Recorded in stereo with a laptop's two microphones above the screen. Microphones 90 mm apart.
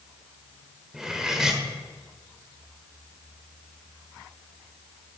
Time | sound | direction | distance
0.9 | cutlery clinking | 5° right (ahead or behind) | 1.7 m